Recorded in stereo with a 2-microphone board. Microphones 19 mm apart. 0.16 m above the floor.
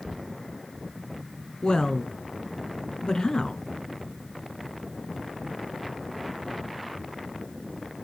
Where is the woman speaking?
45° left (ahead or behind), 1.6 m.